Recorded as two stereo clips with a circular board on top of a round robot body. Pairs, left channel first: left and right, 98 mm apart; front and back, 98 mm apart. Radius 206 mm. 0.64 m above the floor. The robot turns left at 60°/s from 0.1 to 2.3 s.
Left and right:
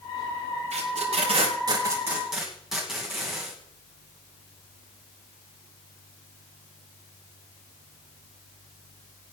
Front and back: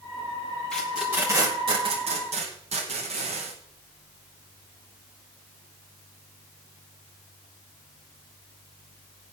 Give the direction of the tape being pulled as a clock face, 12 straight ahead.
3 o'clock.